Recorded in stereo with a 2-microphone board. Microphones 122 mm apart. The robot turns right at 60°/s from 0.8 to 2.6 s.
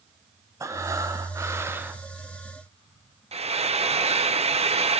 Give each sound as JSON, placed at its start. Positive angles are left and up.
{"t": 0.6, "sound": "breathing", "side_deg": -25, "distance_m": 0.6}
{"t": 3.3, "sound": "frying", "side_deg": -60, "distance_m": 0.6}